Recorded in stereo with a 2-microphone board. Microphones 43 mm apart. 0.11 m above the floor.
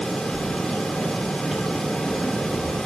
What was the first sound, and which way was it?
Keys jangling, 5° right (ahead or behind).